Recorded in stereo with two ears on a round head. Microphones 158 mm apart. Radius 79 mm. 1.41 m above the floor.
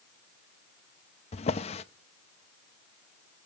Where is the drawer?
35° left (ahead or behind), 0.8 m.